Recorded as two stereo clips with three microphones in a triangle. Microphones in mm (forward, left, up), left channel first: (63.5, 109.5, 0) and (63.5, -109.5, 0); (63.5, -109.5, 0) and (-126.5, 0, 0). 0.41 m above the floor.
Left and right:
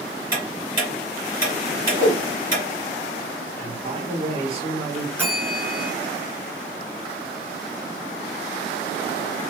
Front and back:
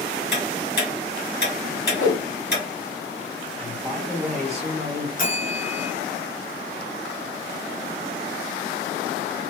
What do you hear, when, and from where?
0.3 s ticking: 25° right, 2.5 m
2.0 s a whoosh: 30° right, 1.5 m
3.6 s a man speaking: 120° right, 1.5 m
5.2 s a bell: 10° right, 1.5 m